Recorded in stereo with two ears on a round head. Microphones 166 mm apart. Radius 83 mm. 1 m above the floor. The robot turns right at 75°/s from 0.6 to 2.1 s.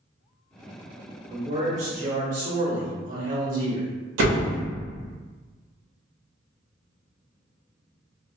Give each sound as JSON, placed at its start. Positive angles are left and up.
{"t": 1.3, "sound": "a man speaking", "azimuth_deg": -160, "distance_m": 1.1}
{"t": 4.2, "sound": "a door slam", "side_deg": -70, "distance_m": 0.8}